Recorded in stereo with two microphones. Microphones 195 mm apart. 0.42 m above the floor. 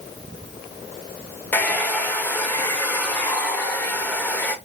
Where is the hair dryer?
10° left (ahead or behind), 0.5 m.